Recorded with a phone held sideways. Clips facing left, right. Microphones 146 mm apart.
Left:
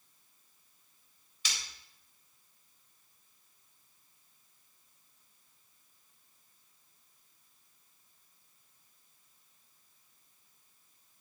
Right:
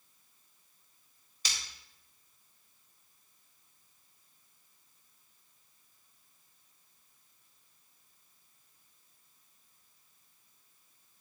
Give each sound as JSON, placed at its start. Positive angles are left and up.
{"t": 1.4, "sound": "breaking glass", "side_deg": -40, "distance_m": 4.0}